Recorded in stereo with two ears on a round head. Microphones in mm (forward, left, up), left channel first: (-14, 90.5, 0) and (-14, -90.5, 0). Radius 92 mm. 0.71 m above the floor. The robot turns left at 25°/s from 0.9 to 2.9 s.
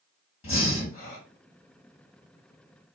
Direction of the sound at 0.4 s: 30° left (ahead or behind).